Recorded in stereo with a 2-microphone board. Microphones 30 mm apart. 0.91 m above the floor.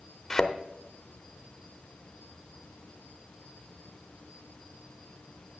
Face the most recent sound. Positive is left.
turn(degrees=15)  # may be behind; listen again after turning